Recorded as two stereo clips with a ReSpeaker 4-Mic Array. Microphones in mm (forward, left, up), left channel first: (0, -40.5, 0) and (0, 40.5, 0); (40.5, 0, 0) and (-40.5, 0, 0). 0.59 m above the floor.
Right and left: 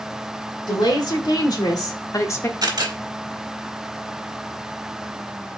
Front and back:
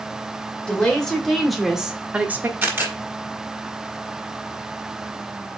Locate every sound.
0.7 s a woman speaking: 80° right, 2 m; by 2.5 s 130° right, 1.1 m
2.6 s a camera shutter: 120° left, 1.7 m